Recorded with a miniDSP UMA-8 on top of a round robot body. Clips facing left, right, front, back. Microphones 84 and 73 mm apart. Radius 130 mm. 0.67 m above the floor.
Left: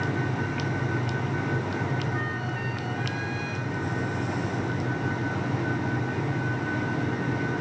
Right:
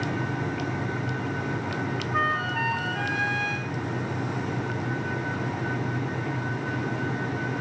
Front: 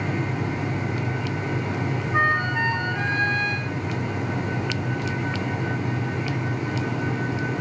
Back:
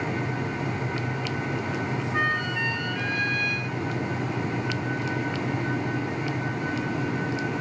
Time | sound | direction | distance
2.1 | a flute | 60° right | ?